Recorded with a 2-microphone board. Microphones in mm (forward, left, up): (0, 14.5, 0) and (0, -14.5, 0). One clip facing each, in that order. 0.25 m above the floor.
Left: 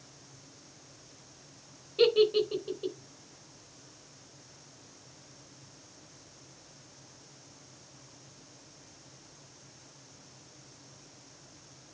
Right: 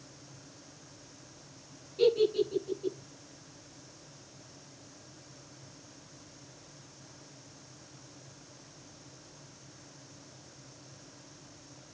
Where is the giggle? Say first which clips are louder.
Left 2 dB; 50° left (ahead or behind), 3 m.